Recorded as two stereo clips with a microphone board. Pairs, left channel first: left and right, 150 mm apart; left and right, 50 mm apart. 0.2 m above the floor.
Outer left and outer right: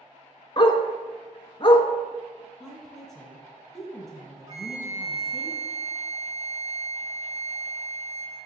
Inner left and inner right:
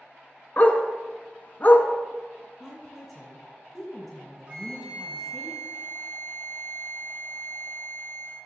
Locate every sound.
0.6 s a dog barking: 40° left (ahead or behind), 0.7 m
2.6 s a woman speaking: centre (ahead or behind), 2 m
4.5 s a flute: 30° right (ahead or behind), 1.4 m